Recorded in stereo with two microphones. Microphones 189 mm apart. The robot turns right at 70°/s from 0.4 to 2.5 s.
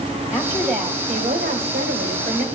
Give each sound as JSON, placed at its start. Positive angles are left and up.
{"t": 0.3, "sound": "a woman speaking", "azimuth_deg": 175, "distance_m": 2.5}